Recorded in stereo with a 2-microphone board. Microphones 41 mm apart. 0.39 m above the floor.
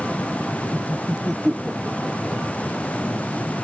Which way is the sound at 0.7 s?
10° right (ahead or behind).